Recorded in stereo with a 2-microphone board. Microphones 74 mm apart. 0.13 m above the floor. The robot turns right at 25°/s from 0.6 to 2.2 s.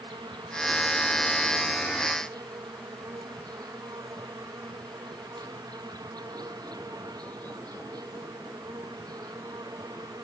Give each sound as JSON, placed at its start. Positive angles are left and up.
{"t": 0.0, "sound": "an insect", "azimuth_deg": -100}